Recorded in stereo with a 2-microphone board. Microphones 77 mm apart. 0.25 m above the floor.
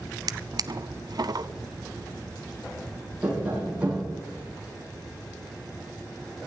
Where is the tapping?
20° right (ahead or behind), 7 m.